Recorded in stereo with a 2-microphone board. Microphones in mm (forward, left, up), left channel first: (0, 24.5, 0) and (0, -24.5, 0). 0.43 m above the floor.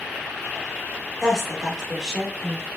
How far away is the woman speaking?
About 1.2 m.